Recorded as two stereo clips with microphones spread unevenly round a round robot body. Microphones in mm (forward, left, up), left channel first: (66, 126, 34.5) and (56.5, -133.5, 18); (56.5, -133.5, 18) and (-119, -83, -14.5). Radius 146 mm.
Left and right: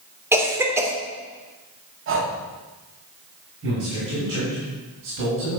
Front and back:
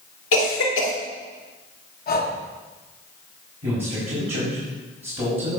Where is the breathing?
55° right, 1.4 m.